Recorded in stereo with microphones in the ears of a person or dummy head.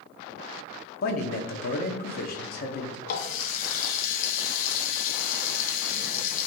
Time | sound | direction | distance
1.0 | a man speaking | 50° left (ahead or behind) | 0.8 m
3.1 | a running tap | 50° left (ahead or behind) | 0.7 m